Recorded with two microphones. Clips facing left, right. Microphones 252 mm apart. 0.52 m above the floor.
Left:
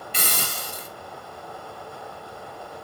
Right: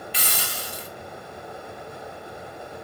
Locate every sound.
0.1 s a hiss: 50° left (ahead or behind), 0.9 m